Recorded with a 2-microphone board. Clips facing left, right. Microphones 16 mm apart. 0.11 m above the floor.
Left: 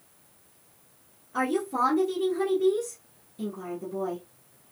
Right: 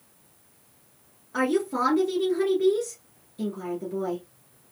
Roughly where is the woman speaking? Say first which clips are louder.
Right 2 dB; right.